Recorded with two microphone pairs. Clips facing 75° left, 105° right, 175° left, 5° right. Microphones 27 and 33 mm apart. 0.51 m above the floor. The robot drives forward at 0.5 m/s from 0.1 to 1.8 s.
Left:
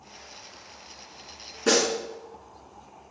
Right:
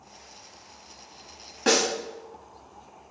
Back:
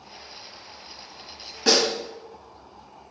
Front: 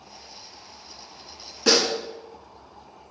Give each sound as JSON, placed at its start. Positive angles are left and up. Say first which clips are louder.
{"t": 1.7, "sound": "a snare drum", "louder": "even, even", "azimuth_deg": -105, "distance_m": 1.8}